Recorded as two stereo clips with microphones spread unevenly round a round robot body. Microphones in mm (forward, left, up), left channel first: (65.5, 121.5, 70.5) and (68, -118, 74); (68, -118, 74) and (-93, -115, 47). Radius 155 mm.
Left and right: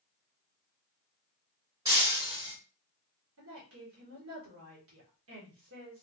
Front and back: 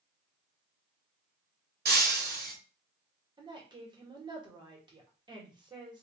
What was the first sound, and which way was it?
Breaking glass, 170° right.